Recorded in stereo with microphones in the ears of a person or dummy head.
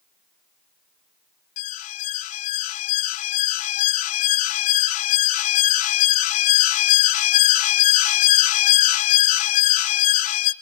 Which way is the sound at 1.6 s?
45° left (ahead or behind).